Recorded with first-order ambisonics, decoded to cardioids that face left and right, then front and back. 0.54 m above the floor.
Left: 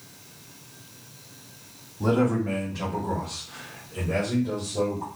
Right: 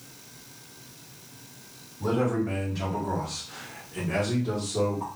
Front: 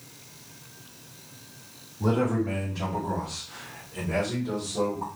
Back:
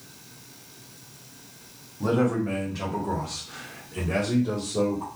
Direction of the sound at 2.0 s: 115° left.